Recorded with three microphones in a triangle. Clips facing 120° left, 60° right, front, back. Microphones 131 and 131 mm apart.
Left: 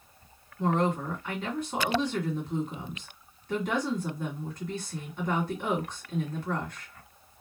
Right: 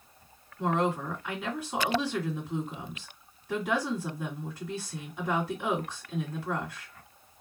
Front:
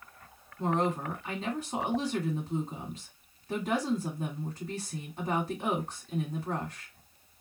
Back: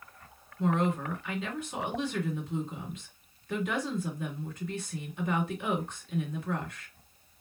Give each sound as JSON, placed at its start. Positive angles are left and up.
{"t": 0.6, "sound": "a woman speaking", "azimuth_deg": 20, "distance_m": 1.9}